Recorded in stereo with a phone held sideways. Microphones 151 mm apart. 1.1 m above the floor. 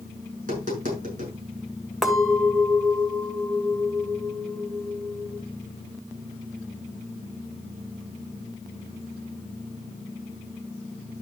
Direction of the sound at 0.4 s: 60° right (ahead or behind).